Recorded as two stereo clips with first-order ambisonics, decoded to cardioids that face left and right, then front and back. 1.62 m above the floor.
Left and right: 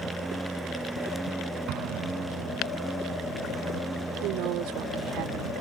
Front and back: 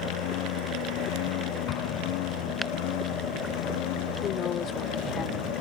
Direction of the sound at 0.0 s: 5° right.